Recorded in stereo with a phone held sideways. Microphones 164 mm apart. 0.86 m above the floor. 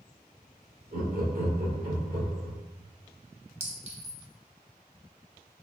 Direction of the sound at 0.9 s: 65° right (ahead or behind).